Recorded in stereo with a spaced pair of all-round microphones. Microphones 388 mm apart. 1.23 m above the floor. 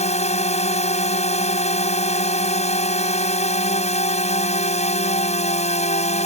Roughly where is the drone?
Centre.